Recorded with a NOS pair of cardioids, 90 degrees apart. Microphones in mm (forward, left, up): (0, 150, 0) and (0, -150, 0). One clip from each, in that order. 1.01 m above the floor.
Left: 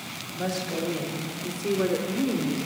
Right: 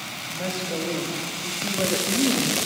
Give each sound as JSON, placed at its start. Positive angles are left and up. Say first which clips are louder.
{"t": 0.3, "sound": "a woman speaking", "louder": "right 1 dB", "azimuth_deg": -5, "distance_m": 2.0}